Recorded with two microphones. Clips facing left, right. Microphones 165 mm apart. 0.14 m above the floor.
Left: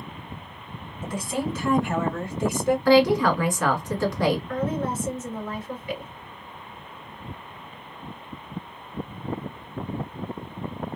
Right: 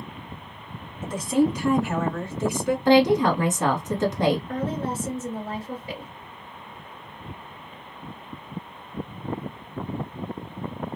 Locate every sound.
1.0 s a woman speaking: 30° right (ahead or behind), 2 m; by 2.8 s 25° left (ahead or behind), 1.7 m
2.9 s a woman speaking: 25° right (ahead or behind), 1.3 m
4.5 s a woman speaking: 35° right (ahead or behind), 2.0 m